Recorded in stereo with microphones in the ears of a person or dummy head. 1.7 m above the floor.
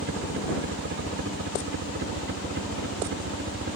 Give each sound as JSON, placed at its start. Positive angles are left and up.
{"t": 0.0, "sound": "a helicopter", "side_deg": -60}